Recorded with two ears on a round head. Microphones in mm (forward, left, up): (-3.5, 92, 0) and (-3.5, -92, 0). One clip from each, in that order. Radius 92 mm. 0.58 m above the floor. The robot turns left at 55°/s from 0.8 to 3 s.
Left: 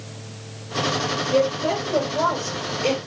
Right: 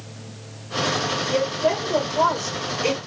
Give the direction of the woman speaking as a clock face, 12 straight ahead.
2 o'clock.